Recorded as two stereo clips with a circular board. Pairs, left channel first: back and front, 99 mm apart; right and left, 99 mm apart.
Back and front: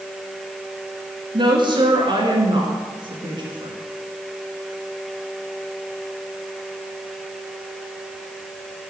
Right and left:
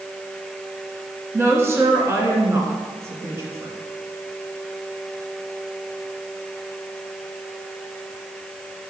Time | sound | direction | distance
1.3 | a woman speaking | 30° left | 2.5 m